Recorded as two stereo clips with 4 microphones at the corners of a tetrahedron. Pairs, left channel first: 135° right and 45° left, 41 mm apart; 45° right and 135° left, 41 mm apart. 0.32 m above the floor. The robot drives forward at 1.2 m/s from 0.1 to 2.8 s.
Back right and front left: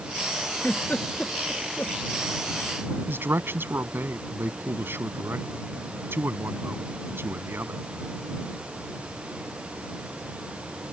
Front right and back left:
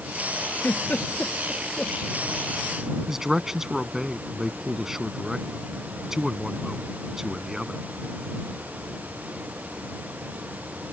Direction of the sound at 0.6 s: 80° right.